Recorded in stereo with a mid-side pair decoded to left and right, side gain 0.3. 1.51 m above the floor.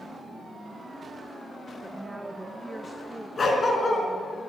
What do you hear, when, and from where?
1.8 s a woman speaking: 10° right, 1.5 m
3.4 s a dog barking: 55° left, 4.5 m